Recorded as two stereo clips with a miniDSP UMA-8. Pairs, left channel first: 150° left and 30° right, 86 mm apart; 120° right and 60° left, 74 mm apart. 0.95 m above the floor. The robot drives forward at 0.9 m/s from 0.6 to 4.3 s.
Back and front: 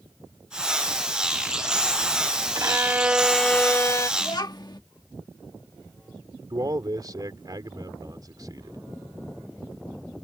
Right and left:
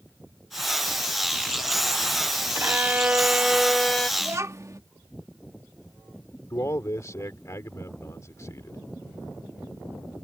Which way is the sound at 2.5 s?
10° left.